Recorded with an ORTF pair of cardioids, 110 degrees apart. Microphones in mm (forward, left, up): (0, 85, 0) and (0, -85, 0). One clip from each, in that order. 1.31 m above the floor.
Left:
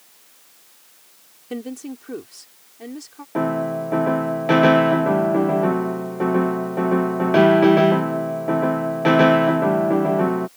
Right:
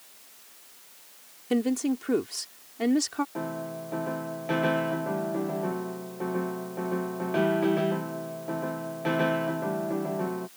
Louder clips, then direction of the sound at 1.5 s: Right 5 dB; 30° right.